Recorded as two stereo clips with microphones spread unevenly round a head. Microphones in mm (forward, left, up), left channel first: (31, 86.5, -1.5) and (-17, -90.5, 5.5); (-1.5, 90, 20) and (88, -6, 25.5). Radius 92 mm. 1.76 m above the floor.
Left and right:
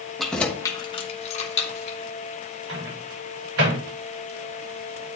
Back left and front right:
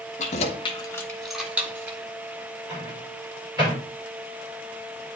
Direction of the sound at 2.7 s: 115° right.